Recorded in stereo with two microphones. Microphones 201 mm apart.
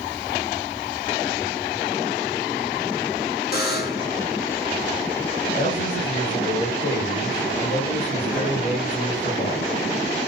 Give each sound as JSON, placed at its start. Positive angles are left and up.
{"t": 3.5, "sound": "a buzzer", "side_deg": 50, "distance_m": 1.0}
{"t": 5.6, "sound": "a man speaking", "side_deg": 50, "distance_m": 3.0}